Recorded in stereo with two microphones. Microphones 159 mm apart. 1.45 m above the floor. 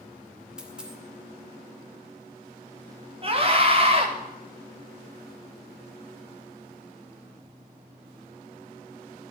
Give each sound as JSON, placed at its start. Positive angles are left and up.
{"t": 0.6, "sound": "a dropped coin", "side_deg": -5, "distance_m": 2.5}
{"t": 3.2, "sound": "a scream", "side_deg": -40, "distance_m": 4.5}